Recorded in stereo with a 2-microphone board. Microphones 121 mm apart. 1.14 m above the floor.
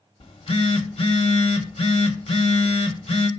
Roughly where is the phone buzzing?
Left.